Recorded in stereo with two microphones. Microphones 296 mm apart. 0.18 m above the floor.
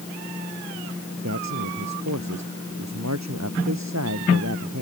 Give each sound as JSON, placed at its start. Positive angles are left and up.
{"t": 1.2, "sound": "a man speaking", "side_deg": -65}